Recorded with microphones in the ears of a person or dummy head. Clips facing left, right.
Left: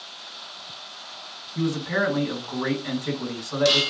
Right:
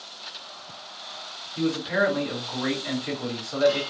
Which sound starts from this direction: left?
A man speaking, at 1.6 s.